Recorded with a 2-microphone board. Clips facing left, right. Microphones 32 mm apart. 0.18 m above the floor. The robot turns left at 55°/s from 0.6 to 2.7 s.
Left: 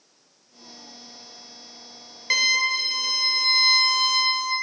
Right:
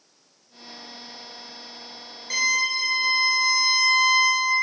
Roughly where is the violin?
Left.